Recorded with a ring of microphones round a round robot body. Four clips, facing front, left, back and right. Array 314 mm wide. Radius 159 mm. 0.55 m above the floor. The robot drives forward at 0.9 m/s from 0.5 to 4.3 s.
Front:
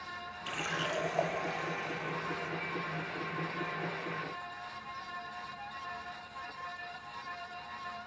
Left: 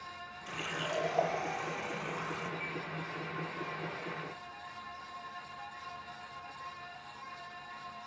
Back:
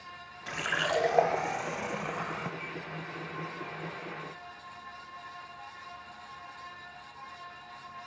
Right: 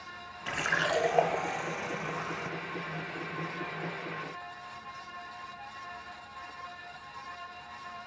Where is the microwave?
125° left, 5.5 m.